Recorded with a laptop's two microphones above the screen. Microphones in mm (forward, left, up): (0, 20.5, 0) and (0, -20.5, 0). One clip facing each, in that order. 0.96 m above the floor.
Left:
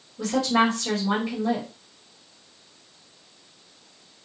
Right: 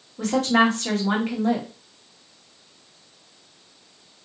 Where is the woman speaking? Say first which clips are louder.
Right 2 dB; 55° right (ahead or behind), 1.2 m.